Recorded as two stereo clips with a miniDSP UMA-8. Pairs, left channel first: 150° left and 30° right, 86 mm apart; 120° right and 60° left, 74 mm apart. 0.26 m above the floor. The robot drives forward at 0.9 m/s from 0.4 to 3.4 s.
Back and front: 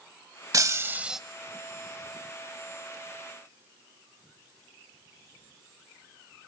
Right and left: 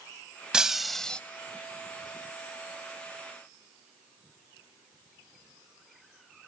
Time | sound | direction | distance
0.5 | breaking glass | 15° right | 0.8 m